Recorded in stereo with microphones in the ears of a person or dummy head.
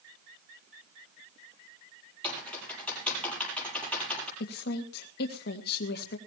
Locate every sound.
2.2 s typing on a keyboard: 5° left (ahead or behind), 8 m
4.4 s a woman speaking: 55° left (ahead or behind), 1.7 m